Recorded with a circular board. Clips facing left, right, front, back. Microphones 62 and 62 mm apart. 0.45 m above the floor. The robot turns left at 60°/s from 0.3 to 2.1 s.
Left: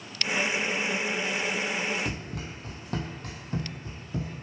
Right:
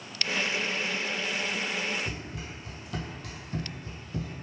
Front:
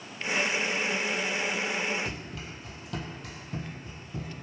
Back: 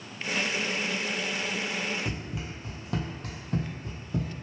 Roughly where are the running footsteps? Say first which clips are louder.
Left 3 dB, back 2 dB; left.